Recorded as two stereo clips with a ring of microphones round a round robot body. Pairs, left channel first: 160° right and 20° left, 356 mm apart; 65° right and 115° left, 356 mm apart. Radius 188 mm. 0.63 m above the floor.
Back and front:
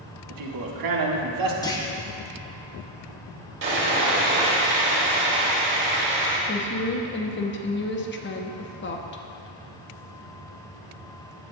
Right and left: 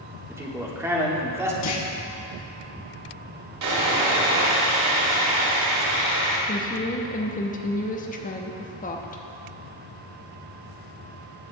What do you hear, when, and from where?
0.3 s a man speaking: 30° left, 1.7 m
1.6 s a clunk: 80° right, 1.2 m
3.6 s sawing: 80° left, 3 m
6.5 s a woman speaking: 120° right, 1.0 m